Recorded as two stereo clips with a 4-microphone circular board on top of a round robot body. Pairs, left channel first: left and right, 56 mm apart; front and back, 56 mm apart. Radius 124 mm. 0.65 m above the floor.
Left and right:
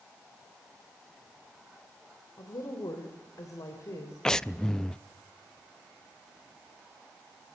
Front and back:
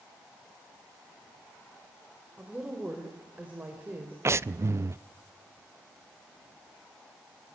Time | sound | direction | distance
2.4 | a woman speaking | 105° left | 3.5 m
4.2 | breathing | 165° left | 0.6 m